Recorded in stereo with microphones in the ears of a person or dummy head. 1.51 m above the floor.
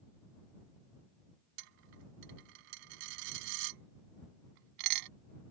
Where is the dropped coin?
65° right (ahead or behind).